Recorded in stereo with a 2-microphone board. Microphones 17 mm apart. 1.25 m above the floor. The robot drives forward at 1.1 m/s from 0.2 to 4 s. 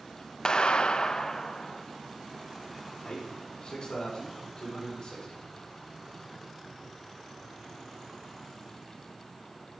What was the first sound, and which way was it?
A clap, 40° left (ahead or behind).